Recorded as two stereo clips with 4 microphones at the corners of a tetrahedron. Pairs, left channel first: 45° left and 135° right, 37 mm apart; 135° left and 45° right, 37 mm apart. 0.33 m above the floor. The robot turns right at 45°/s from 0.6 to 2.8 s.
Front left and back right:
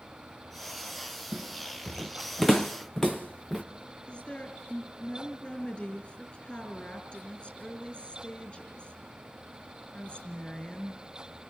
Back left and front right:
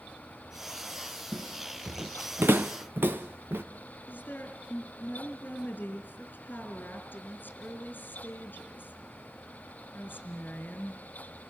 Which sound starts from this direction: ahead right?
Footsteps, at 1.3 s.